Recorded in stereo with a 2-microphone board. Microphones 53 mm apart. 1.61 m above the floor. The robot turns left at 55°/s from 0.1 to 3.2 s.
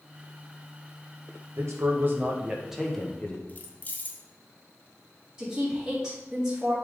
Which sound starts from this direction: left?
Keys jangling, at 3.5 s.